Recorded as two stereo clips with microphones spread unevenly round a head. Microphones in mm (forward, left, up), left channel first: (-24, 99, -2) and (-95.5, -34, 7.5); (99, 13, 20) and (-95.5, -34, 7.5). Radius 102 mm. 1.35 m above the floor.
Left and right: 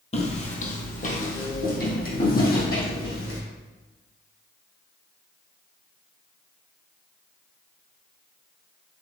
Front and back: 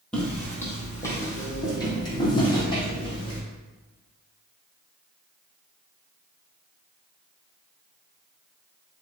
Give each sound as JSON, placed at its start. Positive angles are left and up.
{"t": 0.1, "sound": "footsteps", "azimuth_deg": 95, "distance_m": 2.0}